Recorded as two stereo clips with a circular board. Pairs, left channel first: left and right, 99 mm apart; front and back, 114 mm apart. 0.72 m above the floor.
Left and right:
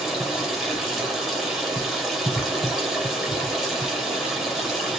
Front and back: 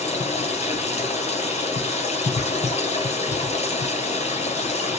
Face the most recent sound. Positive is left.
turn(degrees=0)